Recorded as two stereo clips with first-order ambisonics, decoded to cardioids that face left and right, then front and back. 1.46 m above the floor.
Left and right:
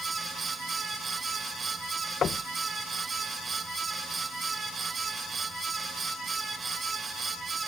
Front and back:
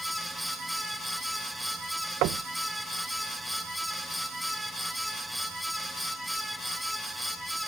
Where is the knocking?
155° left.